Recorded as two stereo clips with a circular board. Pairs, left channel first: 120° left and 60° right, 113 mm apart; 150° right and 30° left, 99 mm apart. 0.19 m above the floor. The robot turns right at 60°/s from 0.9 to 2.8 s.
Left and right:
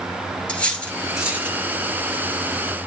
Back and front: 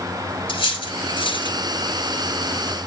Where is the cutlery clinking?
160° right, 2.0 m; by 1.6 s 120° right, 2.0 m.